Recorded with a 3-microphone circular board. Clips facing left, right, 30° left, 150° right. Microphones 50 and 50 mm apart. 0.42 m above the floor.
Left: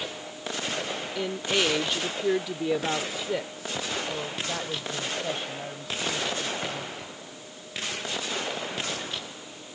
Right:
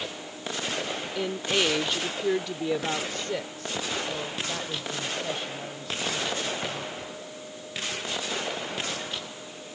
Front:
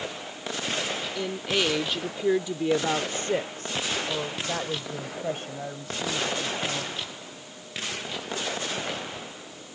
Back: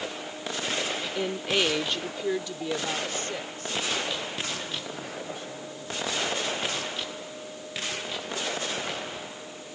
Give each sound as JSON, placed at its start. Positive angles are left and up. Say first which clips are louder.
{"t": 1.1, "sound": "a woman speaking", "louder": "even, back 1 dB", "azimuth_deg": -170}